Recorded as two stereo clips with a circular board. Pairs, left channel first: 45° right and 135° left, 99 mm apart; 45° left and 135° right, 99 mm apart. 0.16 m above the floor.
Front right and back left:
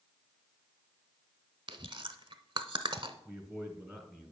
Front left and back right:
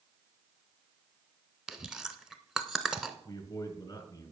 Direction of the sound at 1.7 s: 140° left.